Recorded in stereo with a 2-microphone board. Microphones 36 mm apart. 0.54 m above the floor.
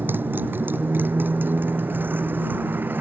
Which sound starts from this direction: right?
A motorcycle, at 0.0 s.